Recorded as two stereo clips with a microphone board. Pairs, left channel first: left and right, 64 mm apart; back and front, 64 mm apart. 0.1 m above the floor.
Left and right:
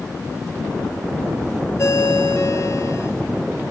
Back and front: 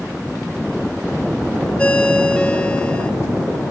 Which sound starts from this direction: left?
A ringtone, at 1.8 s.